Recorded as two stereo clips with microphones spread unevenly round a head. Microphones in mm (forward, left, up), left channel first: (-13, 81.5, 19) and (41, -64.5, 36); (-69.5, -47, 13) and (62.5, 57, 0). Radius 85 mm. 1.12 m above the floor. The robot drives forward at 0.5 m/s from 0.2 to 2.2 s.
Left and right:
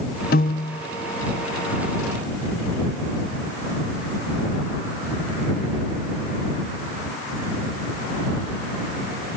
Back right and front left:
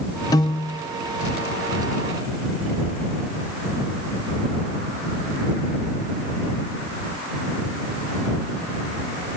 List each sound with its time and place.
0.3 s a piano: 150° left; by 0.9 s 160° left